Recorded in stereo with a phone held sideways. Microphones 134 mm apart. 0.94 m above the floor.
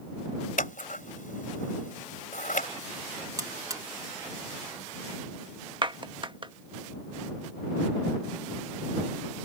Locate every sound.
0.6 s scissors: 85° left
3.4 s a buzzer: 25° right (ahead or behind)
5.8 s a clap: 40° right (ahead or behind)